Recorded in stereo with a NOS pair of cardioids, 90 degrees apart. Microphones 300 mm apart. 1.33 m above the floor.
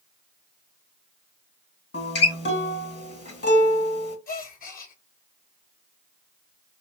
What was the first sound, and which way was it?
A guitar, 35° left.